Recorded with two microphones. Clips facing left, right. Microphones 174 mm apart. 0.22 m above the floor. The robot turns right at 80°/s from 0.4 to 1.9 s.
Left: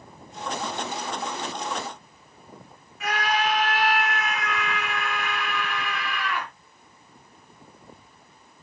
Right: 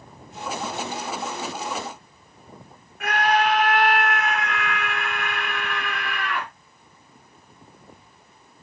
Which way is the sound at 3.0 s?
60° right (ahead or behind).